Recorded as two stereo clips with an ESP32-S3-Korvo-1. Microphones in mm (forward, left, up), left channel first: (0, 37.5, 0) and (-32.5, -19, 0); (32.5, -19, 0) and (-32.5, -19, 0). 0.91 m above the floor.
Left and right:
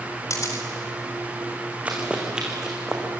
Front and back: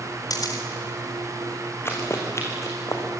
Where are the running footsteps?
50° right, 4.5 m; by 3.0 s 35° right, 4.5 m.